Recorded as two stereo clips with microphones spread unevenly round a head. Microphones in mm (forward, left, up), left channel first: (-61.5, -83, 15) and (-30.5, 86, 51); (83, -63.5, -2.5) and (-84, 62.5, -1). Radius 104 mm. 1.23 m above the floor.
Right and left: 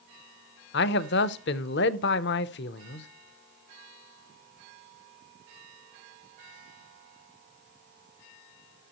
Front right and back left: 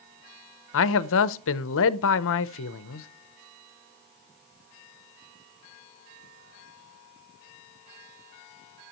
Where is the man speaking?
70° right, 0.6 m.